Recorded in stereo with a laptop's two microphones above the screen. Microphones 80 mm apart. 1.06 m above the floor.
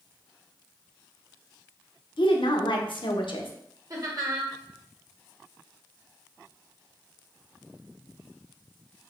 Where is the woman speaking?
80° left, 0.6 m.